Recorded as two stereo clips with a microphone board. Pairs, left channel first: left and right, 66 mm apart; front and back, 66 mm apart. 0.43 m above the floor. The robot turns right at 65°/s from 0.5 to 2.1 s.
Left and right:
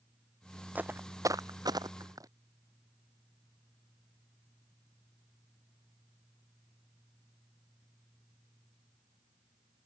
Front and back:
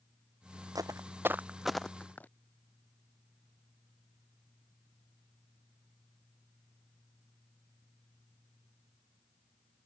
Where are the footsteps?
155° right; by 2.3 s 65° right.